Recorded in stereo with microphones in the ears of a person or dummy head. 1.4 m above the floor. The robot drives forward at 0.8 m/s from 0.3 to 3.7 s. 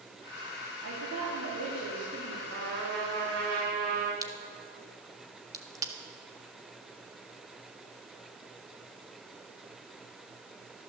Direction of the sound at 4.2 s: 20° right (ahead or behind).